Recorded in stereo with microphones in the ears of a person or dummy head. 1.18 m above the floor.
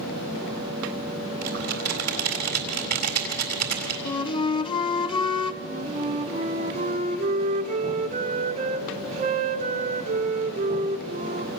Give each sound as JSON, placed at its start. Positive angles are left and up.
{"t": 1.4, "sound": "typing on a keyboard", "side_deg": -50, "distance_m": 3.5}
{"t": 4.0, "sound": "a flute", "side_deg": 25, "distance_m": 0.8}
{"t": 5.6, "sound": "a flute", "side_deg": -35, "distance_m": 1.3}